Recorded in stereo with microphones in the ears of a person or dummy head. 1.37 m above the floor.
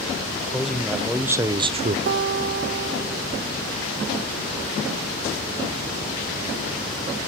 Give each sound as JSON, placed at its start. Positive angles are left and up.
{"t": 0.5, "sound": "a man speaking", "side_deg": 0, "distance_m": 1.4}
{"t": 2.1, "sound": "a guitar", "side_deg": -50, "distance_m": 0.9}